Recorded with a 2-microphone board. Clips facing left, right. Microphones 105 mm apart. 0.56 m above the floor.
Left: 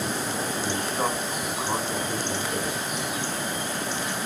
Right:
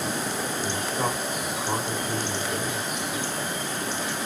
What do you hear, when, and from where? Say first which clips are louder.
0.6 s a man speaking: left 1 dB; centre (ahead or behind), 1.8 m